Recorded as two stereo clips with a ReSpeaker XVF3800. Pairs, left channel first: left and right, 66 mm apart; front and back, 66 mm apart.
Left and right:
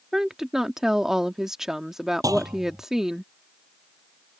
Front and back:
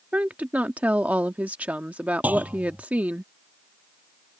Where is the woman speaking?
160° right.